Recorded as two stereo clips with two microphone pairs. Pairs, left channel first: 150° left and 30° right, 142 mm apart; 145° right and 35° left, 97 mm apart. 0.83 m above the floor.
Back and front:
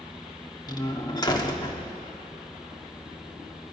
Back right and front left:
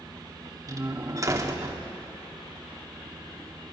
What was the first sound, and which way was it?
A door slam, 90° left.